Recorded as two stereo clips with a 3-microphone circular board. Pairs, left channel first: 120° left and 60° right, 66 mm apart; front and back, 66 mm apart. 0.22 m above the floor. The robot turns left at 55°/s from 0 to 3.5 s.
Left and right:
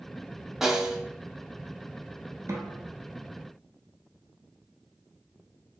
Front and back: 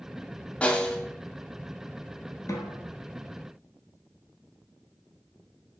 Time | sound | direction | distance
0.6 | a snare drum | 10° left | 0.5 m
2.5 | a snare drum | 30° right | 0.8 m